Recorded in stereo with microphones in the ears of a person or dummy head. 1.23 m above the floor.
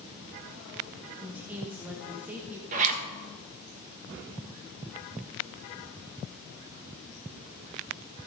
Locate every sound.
1.2 s a woman speaking: 10° right (ahead or behind), 1.2 m
2.7 s a zipper: 45° right (ahead or behind), 1.4 m